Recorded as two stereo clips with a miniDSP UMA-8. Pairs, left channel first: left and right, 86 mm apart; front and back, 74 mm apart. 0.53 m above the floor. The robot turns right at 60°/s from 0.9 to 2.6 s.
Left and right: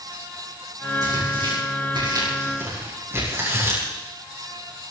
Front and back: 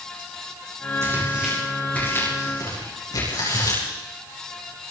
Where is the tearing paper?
125° right, 9.5 m; by 3.8 s 30° right, 9.5 m.